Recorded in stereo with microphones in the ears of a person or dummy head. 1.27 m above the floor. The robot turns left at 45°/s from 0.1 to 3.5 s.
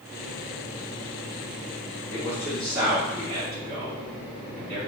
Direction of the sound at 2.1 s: 15° left (ahead or behind).